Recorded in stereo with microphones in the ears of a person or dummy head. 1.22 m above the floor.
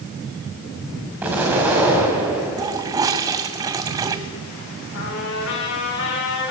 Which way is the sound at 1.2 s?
10° right (ahead or behind).